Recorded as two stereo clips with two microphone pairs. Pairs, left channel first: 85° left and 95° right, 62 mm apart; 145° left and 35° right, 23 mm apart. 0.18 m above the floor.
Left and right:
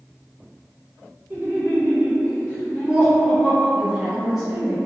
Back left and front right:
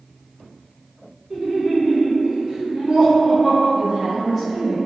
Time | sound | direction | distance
1.3 | laughter | 85° right | 1.7 m
3.8 | a woman speaking | 15° right | 1.1 m